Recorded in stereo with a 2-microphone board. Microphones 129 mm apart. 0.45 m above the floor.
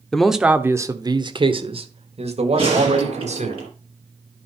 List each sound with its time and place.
0.1 s a man speaking: 5° left (ahead or behind), 0.9 m; by 3.5 s 70° right (ahead or behind), 2.5 m
2.5 s a gunshot: 50° right (ahead or behind), 5 m